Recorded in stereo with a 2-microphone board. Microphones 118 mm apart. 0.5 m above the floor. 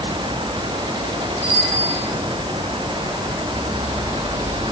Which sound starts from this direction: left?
A bicycle bell, at 1.4 s.